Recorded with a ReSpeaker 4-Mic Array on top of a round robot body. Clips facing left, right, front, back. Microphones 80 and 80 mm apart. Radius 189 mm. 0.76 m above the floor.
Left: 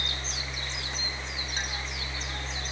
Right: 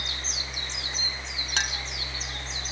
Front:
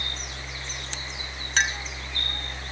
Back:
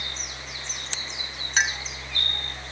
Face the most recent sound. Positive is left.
turn(degrees=-95)